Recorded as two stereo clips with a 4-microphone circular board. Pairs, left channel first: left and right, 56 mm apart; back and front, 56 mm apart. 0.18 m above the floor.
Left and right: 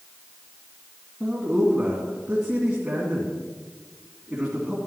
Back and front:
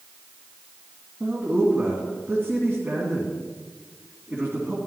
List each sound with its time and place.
1.2 s a man speaking: 20° right, 2 m